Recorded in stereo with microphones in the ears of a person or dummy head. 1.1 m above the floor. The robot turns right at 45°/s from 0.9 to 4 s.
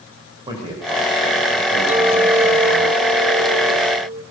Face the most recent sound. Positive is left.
turn(degrees=-75)